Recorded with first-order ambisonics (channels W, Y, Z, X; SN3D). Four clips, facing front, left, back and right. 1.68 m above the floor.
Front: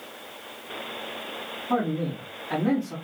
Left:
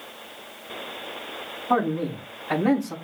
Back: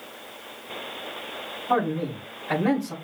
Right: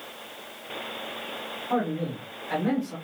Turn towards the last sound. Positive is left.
turn(degrees=145)